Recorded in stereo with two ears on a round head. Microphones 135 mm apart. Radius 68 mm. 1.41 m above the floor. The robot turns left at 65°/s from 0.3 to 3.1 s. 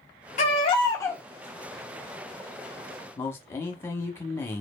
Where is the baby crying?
65° left, 0.7 m; by 1.2 s 10° left, 0.7 m.